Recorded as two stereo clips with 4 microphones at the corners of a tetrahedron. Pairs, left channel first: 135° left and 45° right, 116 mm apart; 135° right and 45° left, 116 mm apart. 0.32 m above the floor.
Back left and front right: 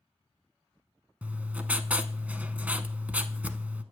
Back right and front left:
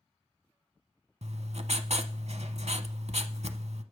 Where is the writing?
30° left, 0.6 m.